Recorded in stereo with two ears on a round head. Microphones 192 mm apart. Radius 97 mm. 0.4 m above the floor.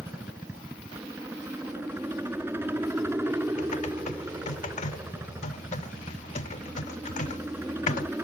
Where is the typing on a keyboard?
35° left (ahead or behind).